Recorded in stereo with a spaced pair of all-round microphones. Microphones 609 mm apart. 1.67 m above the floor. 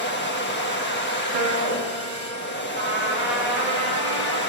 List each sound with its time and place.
0.0 s a machine running: 15° left (ahead or behind), 1.3 m
1.3 s a piano: 75° right (ahead or behind), 1.0 m
2.8 s a trumpet: 50° right (ahead or behind), 3 m